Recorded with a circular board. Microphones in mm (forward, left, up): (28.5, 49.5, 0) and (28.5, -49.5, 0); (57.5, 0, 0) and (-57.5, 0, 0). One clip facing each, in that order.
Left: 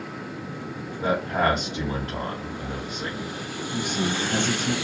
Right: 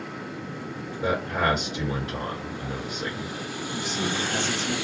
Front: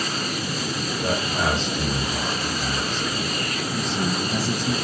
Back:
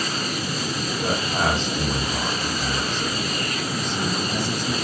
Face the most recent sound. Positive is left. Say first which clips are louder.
# left 3 dB, front 2 dB
turn(degrees=55)